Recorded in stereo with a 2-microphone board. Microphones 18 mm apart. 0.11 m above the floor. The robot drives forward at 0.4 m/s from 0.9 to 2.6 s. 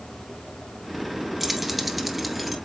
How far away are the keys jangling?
About 1.0 m.